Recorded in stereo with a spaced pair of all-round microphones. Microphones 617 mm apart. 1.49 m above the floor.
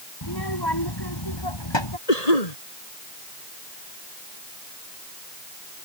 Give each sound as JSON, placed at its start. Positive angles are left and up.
{"t": 0.2, "sound": "a child speaking", "side_deg": 35}
{"t": 2.1, "sound": "a cough", "side_deg": 90}